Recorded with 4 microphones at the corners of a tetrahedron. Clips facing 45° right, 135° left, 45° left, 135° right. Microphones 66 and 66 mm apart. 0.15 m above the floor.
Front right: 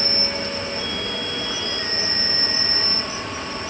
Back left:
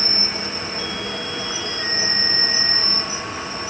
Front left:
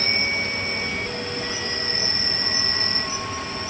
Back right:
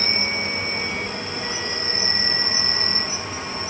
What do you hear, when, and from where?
0.0 s an insect: 175° right, 1.8 m